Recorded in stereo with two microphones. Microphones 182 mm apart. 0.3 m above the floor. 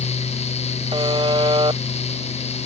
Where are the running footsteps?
I don't hear running footsteps.